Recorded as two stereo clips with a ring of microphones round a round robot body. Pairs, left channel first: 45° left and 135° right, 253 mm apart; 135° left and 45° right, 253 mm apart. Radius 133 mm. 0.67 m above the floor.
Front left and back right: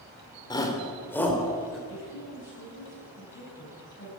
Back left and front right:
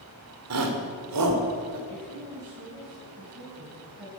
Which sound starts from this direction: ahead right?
A shout, at 0.5 s.